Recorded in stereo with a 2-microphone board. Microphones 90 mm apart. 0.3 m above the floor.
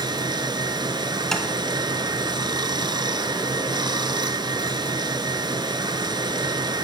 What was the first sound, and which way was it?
Running water, 55° right (ahead or behind).